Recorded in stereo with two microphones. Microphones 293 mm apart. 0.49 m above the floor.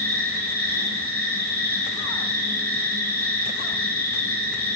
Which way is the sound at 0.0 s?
35° right (ahead or behind).